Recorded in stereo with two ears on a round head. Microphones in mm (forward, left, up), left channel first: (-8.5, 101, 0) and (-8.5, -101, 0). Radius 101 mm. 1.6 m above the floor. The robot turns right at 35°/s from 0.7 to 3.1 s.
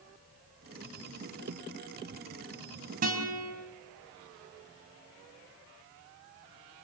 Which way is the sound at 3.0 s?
40° right (ahead or behind).